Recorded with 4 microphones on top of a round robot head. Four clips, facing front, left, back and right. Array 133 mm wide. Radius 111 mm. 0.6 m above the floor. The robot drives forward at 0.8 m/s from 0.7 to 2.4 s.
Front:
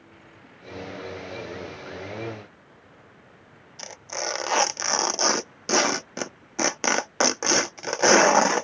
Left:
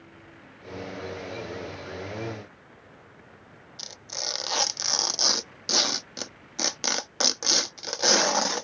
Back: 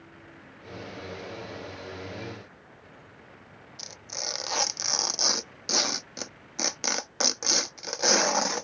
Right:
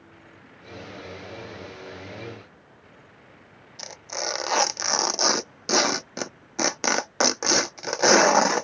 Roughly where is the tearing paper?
Ahead right.